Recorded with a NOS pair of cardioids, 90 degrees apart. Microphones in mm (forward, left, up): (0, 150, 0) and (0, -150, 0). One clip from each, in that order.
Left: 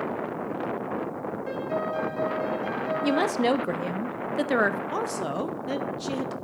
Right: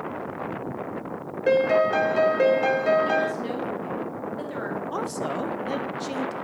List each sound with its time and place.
1.5 s a piano: 70° right, 0.6 m
3.0 s a woman speaking: 70° left, 0.7 m
4.9 s a woman speaking: 5° left, 0.6 m